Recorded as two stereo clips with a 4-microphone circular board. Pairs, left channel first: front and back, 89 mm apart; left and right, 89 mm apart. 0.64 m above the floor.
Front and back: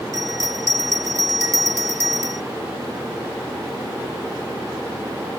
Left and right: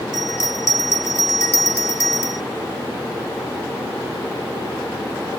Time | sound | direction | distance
0.1 | a bell | 135° left | ?